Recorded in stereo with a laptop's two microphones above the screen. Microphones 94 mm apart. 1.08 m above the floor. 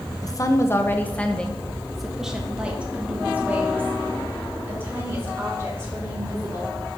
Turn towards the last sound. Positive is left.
turn(degrees=-30)  # may be behind; listen again after turning